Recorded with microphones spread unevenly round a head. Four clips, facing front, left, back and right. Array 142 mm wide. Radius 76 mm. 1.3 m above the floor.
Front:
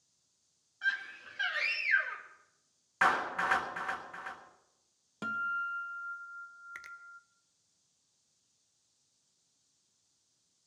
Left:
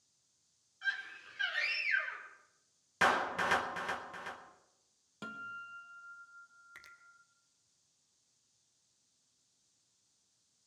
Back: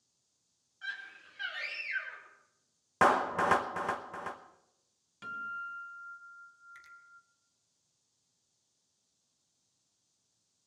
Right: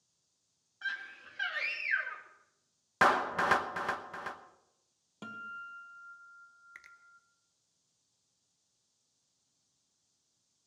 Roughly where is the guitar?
Ahead.